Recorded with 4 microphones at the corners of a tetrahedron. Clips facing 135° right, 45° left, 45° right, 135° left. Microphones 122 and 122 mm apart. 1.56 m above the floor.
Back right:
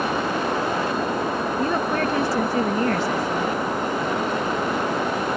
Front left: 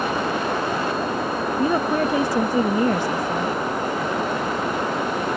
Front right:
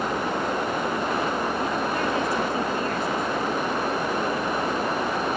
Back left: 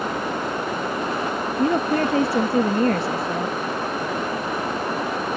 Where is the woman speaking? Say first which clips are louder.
Front left 4 dB, back left 5 dB; 115° left.